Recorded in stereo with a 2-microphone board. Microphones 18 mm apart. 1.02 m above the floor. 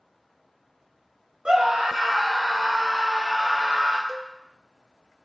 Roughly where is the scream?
Right.